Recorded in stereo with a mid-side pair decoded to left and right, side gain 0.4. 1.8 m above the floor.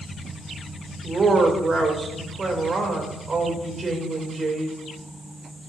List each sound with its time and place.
1.0 s a woman speaking: 40° right, 3 m